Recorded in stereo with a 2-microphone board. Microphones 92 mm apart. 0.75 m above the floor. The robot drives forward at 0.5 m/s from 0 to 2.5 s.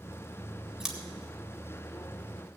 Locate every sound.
0.8 s scissors: 5° right (ahead or behind), 2.0 m